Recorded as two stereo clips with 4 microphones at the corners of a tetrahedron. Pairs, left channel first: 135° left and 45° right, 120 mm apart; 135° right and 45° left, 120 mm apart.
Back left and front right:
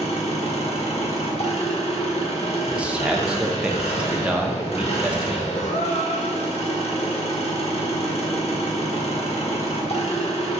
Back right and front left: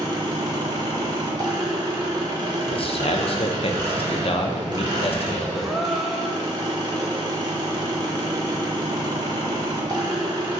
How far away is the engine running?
About 1.0 m.